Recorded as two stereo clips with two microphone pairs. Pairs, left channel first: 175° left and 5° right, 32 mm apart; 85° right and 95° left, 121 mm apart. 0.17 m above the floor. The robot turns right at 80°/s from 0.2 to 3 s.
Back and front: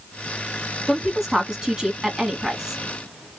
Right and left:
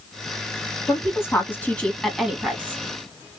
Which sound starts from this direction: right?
A woman speaking, at 0.9 s.